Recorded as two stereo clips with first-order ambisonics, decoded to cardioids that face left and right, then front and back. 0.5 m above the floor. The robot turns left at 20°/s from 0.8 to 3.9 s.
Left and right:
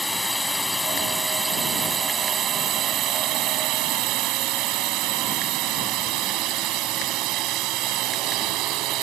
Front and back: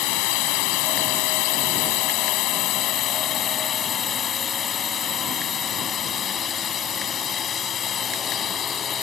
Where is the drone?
Straight ahead; by 9.0 s 60° right.